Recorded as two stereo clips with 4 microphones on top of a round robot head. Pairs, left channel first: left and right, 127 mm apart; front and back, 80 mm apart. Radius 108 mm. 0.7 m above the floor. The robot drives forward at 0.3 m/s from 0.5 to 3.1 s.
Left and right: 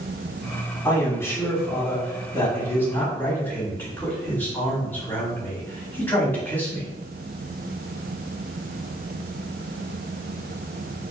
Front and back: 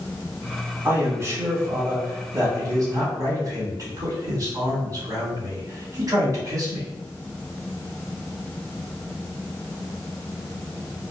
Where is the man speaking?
145° left, 1.3 m; by 6.9 s 160° left, 1.8 m.